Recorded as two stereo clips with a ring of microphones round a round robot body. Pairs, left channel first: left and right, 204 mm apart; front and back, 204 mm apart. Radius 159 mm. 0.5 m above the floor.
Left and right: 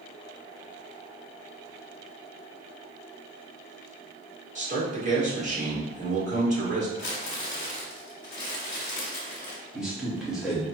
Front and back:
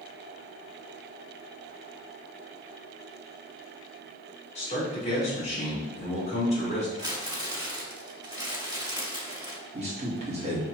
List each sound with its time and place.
4.5 s a man speaking: 50° right, 1.7 m
7.0 s crumpling: 115° left, 1.7 m
9.7 s a man speaking: 175° right, 1.3 m